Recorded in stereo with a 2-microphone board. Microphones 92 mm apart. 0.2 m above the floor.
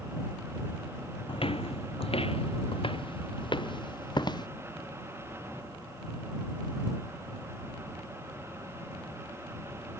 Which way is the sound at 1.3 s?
65° left (ahead or behind).